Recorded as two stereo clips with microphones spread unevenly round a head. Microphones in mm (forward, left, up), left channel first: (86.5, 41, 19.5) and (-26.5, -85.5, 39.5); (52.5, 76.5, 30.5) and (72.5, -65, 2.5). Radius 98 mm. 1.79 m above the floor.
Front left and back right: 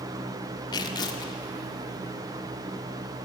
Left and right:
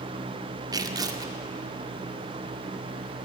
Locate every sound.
0.7 s tearing paper: 15° right, 1.8 m